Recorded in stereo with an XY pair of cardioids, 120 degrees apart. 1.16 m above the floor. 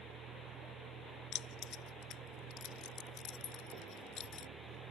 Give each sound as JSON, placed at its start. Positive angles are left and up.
{"t": 0.0, "sound": "a vehicle", "azimuth_deg": -65}
{"t": 1.3, "sound": "keys jangling", "azimuth_deg": 70}